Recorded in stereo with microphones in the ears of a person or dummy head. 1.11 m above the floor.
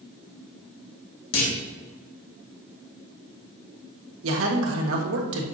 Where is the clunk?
75° left (ahead or behind), 2 m.